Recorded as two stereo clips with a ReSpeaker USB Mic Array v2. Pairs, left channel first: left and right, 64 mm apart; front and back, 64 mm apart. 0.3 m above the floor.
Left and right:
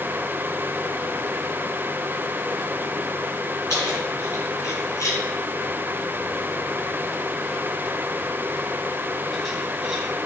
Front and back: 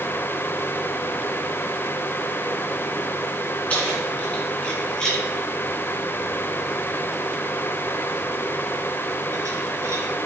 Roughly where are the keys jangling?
Ahead left.